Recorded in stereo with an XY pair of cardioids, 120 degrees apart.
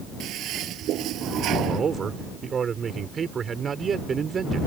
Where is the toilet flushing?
65° right.